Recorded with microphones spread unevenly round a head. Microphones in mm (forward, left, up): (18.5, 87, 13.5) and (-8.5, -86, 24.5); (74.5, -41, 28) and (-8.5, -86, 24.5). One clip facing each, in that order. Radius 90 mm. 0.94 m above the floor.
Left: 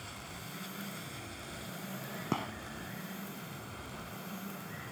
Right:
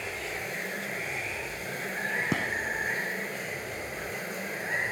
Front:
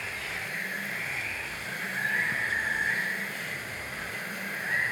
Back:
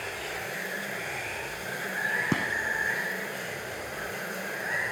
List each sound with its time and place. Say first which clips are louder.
0.0 s running water: right 12 dB, back 2 dB; 95° right
2.3 s a gunshot: right 4 dB, back 4 dB; 170° right